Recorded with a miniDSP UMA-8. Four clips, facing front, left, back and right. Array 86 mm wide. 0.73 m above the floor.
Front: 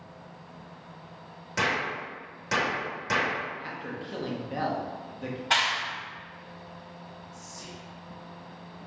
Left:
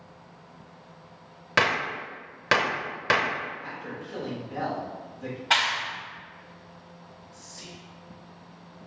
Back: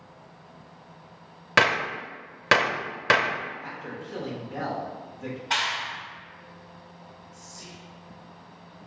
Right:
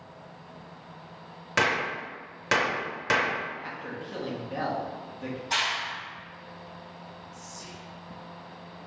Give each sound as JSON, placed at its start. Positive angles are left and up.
{"t": 1.6, "sound": "a gunshot", "azimuth_deg": 160, "distance_m": 0.6}
{"t": 3.6, "sound": "a man speaking", "azimuth_deg": -25, "distance_m": 0.9}
{"t": 5.5, "sound": "a clap", "azimuth_deg": 70, "distance_m": 1.9}
{"t": 7.3, "sound": "whispering", "azimuth_deg": 85, "distance_m": 1.0}